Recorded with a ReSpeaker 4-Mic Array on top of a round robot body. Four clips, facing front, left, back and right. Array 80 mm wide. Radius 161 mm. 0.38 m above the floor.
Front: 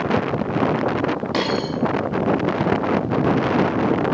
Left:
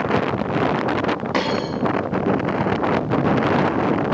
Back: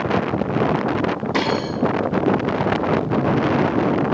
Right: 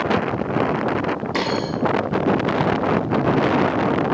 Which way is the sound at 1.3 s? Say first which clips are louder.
Left 1 dB, back 1 dB; 75° left.